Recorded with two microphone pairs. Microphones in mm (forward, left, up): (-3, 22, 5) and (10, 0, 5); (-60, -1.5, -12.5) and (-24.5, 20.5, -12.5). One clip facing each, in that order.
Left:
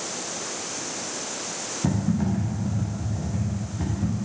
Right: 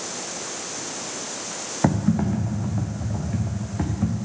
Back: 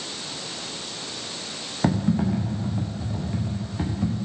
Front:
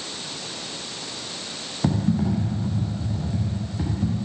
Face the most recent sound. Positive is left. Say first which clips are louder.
# right 4 dB, even
turn(degrees=-85)